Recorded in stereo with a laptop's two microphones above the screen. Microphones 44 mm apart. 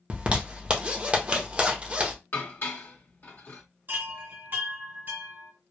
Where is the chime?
55° right (ahead or behind), 1.6 m.